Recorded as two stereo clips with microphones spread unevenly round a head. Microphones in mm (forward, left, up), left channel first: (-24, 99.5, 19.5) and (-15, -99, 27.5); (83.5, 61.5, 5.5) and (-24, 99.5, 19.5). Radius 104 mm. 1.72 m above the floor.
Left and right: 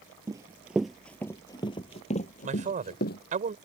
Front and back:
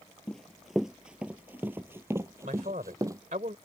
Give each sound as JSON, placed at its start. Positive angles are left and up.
{"t": 0.3, "sound": "running footsteps", "azimuth_deg": -115}
{"t": 2.4, "sound": "a man speaking", "azimuth_deg": -140}